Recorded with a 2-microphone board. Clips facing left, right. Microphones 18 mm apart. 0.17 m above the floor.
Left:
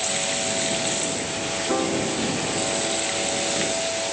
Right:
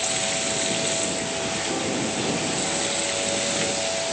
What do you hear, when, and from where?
1.7 s a piano: 35° left (ahead or behind)